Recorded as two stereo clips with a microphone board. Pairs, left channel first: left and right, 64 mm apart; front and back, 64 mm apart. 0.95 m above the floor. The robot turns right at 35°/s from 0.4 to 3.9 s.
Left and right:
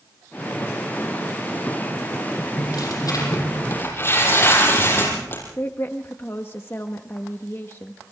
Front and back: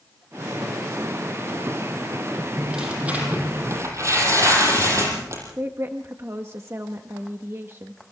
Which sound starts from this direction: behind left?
A woman speaking, at 5.6 s.